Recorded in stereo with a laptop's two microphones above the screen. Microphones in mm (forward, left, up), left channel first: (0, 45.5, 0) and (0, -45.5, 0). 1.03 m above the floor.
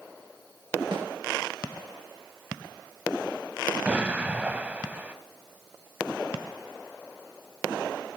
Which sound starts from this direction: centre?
An explosion, at 3.9 s.